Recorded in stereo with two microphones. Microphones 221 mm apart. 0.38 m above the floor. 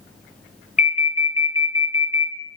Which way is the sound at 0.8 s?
35° left (ahead or behind).